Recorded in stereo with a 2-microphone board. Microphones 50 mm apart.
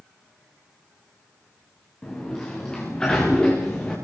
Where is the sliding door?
15° left (ahead or behind), 9.5 m.